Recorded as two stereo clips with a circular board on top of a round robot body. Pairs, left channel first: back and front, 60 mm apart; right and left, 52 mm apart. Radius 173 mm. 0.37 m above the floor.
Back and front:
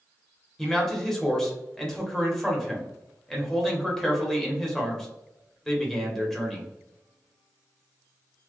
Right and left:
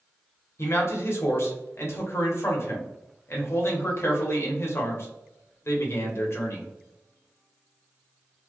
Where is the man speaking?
100° right, 1.4 m.